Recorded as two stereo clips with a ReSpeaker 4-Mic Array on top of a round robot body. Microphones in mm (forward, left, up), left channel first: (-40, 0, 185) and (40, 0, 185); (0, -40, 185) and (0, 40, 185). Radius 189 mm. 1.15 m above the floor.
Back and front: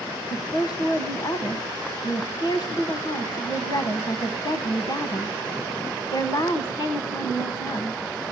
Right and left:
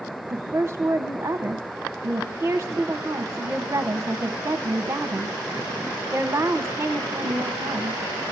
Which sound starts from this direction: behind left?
A woman speaking, at 0.3 s.